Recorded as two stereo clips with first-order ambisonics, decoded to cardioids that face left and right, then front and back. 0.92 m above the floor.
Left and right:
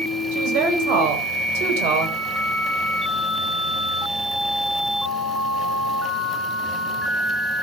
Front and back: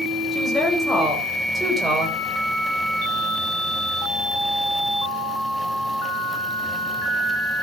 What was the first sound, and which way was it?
A woman speaking, 75° right.